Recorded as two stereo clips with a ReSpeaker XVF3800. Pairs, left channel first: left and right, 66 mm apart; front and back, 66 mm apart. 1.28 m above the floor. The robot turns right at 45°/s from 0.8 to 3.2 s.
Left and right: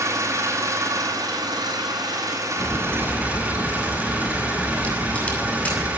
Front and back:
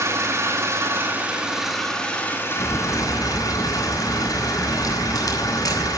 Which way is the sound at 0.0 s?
130° right.